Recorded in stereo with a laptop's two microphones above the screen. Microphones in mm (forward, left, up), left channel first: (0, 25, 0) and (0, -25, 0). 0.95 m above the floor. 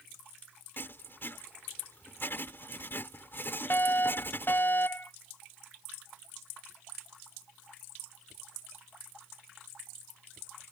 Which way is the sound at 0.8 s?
50° left (ahead or behind).